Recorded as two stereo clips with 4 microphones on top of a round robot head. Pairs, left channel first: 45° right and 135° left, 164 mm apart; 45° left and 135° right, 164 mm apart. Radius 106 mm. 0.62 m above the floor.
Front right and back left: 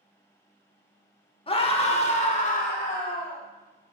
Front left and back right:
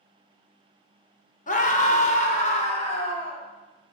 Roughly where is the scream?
Ahead.